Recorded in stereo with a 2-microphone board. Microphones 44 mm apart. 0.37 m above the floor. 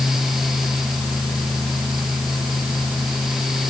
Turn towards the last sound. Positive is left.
No sound to turn to.